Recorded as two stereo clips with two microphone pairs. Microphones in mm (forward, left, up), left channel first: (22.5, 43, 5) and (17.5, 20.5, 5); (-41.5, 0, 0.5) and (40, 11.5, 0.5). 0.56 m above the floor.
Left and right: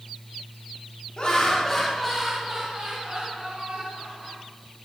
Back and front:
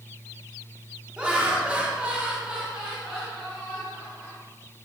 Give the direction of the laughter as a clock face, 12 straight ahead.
9 o'clock.